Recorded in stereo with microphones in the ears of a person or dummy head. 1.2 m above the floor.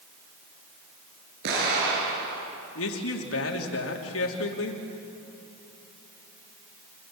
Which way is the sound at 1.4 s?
70° right (ahead or behind).